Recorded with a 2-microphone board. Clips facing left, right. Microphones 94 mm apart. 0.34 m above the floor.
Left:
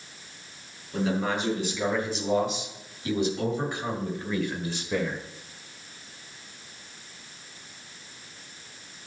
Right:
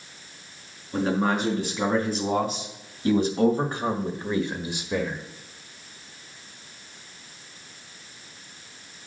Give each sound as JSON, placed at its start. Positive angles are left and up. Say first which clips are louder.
{"t": 0.9, "sound": "a man speaking", "louder": "right 3 dB", "side_deg": -40, "distance_m": 4.5}